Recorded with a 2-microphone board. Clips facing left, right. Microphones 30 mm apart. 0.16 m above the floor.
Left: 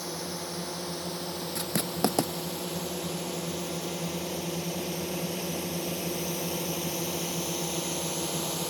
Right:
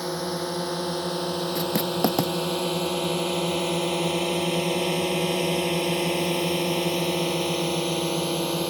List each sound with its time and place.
0.0 s a drone: 50° right (ahead or behind); by 8.7 s 35° right (ahead or behind)
1.6 s writing: 5° right (ahead or behind)